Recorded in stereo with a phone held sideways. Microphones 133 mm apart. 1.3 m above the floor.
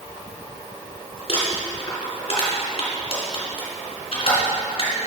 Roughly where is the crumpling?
Left.